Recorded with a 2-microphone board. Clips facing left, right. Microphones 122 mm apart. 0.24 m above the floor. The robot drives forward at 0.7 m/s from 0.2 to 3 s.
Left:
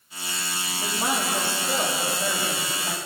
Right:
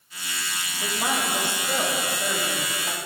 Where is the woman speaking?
10° right (ahead or behind), 8 m; by 3.0 s 5° right (ahead or behind), 9.5 m.